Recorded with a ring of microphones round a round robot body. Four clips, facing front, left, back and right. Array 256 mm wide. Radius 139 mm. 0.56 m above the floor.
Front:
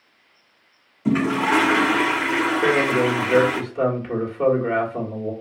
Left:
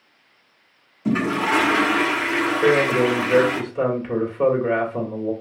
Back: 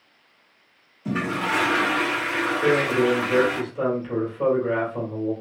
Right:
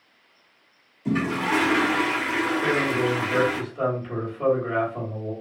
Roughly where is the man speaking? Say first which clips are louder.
Left 9 dB, back 1 dB; ahead left.